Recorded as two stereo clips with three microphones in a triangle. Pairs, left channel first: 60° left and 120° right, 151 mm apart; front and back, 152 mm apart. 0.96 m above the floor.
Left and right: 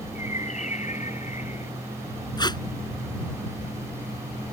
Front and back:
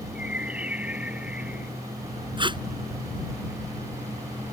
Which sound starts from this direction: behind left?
Tape being pulled, at 2.4 s.